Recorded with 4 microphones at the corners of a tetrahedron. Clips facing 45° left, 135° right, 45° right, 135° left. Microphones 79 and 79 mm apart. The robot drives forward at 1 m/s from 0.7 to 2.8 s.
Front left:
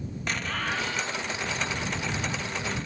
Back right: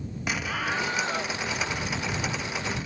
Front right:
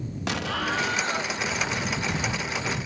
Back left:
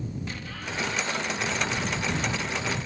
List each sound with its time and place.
0.3 s an explosion: 55° right; by 1.4 s 125° right